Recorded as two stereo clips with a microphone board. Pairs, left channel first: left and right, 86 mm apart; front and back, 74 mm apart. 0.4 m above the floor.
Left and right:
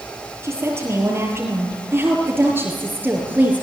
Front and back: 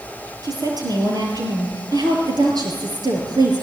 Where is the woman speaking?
150° right, 7.5 m; by 3.6 s 160° right, 5.5 m.